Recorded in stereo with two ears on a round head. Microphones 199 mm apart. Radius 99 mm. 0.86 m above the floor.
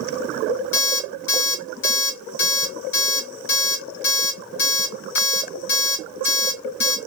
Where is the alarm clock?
55° left (ahead or behind), 1.4 m.